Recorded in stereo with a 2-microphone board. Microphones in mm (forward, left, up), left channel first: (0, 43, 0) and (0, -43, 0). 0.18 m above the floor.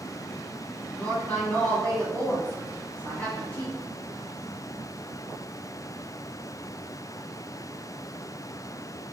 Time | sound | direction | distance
1.0 | a woman speaking | 20° left (ahead or behind) | 1.3 m